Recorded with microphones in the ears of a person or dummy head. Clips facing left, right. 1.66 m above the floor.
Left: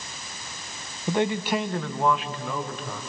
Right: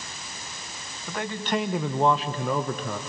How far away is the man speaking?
About 0.9 m.